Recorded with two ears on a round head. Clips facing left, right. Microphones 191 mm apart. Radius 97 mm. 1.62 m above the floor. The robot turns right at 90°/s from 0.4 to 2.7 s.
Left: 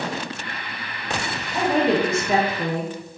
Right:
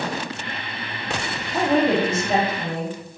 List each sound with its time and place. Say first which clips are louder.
1.5 s a woman speaking: right 1 dB; 15° right, 1.2 m; by 3.0 s 85° left, 1.2 m